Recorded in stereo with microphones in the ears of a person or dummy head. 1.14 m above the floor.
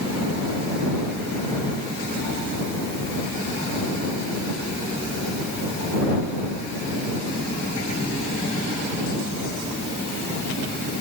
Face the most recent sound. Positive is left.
No sound to turn to.